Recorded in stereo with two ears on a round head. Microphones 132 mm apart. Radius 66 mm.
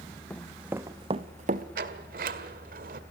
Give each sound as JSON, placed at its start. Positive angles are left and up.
{"t": 0.3, "sound": "running footsteps", "side_deg": 10, "distance_m": 1.4}
{"t": 1.8, "sound": "a sliding door", "side_deg": -65, "distance_m": 1.9}